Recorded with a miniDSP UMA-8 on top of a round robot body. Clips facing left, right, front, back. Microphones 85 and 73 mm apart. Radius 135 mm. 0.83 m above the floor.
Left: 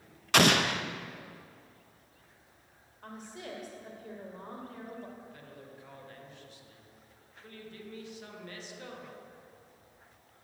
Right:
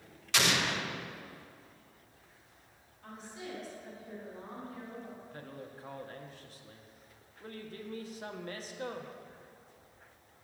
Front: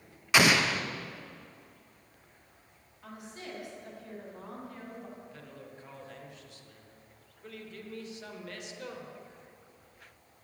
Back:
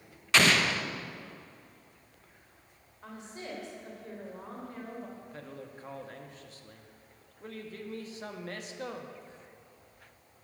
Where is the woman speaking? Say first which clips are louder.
Left 1 dB, back 2 dB; 120° left, 3 m.